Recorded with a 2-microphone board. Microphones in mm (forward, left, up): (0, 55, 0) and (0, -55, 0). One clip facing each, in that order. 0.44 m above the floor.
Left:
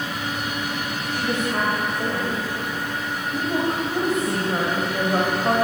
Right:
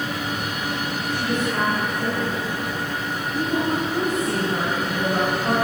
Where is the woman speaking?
30° left (ahead or behind), 2 m.